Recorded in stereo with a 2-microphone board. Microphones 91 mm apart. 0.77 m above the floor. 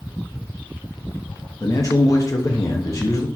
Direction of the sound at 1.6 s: 40° left (ahead or behind).